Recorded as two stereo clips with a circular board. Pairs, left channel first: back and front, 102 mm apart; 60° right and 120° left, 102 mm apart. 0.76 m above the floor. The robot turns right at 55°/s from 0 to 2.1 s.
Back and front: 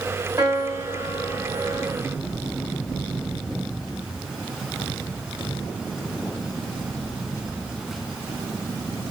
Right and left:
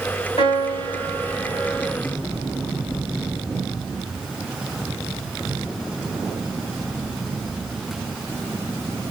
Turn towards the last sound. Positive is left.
turn(degrees=35)